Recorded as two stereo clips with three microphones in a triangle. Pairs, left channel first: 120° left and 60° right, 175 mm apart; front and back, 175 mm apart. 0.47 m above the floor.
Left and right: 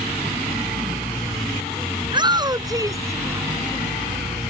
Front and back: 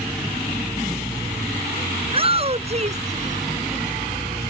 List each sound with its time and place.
2.0 s a shout: 125° right; by 3.5 s 140° right